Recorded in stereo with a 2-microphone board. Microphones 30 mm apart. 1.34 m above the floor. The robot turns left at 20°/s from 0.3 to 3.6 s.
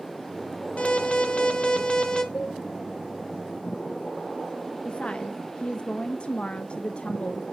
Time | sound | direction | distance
0.8 | an alarm | 45° left (ahead or behind) | 1.1 m
2.3 | a cowbell | 65° left (ahead or behind) | 3.5 m
4.8 | a woman speaking | 35° left (ahead or behind) | 0.5 m